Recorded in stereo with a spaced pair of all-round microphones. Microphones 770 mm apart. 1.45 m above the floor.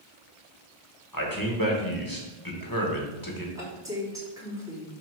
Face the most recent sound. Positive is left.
turn(degrees=-5)  # may be behind; listen again after turning